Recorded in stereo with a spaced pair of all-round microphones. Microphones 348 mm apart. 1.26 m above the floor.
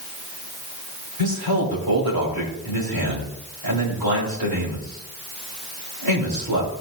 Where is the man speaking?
80° right, 3.5 m.